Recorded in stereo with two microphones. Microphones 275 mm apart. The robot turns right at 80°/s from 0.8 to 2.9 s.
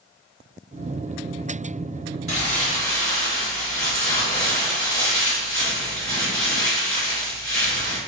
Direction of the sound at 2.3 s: 125° left.